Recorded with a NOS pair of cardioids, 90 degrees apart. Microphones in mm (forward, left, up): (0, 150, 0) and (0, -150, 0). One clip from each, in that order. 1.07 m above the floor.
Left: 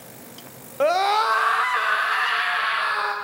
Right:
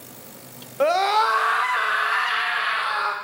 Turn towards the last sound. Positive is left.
turn(degrees=0)